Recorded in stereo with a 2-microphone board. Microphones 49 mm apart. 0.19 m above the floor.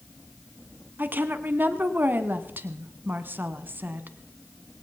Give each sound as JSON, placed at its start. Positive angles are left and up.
{"t": 1.0, "sound": "a woman speaking", "side_deg": -45, "distance_m": 1.5}